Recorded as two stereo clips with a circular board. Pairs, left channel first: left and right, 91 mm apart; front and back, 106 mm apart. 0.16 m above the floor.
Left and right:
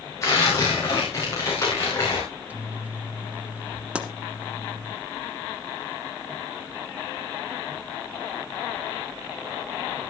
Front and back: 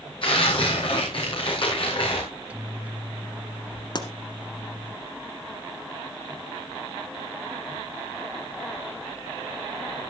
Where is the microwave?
125° right, 1.0 m.